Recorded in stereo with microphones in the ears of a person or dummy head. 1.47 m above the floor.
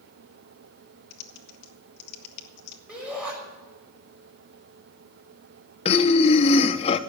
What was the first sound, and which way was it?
Typing on a keyboard, 55° left (ahead or behind).